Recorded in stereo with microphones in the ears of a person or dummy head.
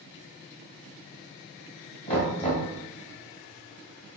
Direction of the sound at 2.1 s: 35° left (ahead or behind).